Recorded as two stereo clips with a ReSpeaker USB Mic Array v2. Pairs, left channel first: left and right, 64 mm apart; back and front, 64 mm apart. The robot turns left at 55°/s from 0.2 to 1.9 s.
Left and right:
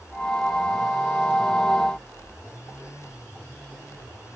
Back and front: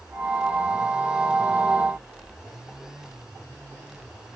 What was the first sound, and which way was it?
Only background noise.